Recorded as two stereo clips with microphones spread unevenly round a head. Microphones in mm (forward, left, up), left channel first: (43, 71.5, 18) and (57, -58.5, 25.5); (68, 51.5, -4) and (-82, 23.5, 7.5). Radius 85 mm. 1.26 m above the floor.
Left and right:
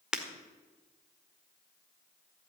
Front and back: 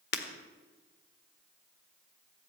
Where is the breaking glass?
Straight ahead, 1.6 m.